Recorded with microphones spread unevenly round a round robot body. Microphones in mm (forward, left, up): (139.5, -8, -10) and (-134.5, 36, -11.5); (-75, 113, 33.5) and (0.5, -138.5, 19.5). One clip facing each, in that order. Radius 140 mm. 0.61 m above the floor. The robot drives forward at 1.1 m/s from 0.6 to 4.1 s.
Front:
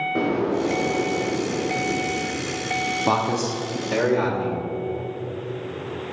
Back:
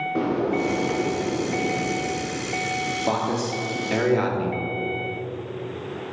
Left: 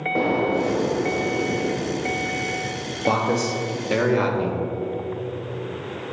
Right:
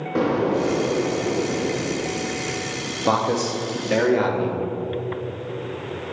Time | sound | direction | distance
0.1 | an explosion | 100° right | 0.9 m
3.0 | a man speaking | 10° right | 0.8 m